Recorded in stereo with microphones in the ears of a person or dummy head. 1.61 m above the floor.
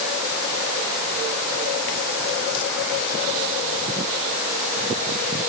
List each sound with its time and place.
Only background noise.